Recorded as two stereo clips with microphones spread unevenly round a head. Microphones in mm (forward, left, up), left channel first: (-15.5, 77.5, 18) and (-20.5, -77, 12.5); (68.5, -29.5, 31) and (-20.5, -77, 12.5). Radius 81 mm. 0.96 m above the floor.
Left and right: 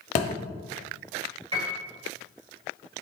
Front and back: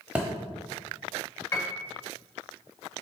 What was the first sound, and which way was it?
A thud, 115° left.